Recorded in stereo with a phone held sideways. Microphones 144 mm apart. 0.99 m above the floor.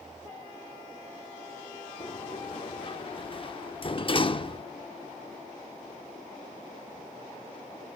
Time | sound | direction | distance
2.0 | a sliding door | 40° left (ahead or behind) | 0.7 m